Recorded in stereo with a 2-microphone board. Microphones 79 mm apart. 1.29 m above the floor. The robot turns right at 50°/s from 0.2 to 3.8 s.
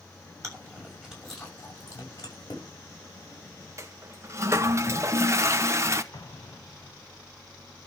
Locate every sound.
0.4 s chewing: 40° right (ahead or behind), 6.5 m; by 2.6 s 70° left (ahead or behind), 6.5 m
1.9 s breathing: 35° left (ahead or behind), 1.0 m; by 2.2 s 25° left (ahead or behind), 1.0 m
3.8 s a toilet flushing: 40° right (ahead or behind), 0.9 m
6.1 s an explosion: 50° left (ahead or behind), 0.6 m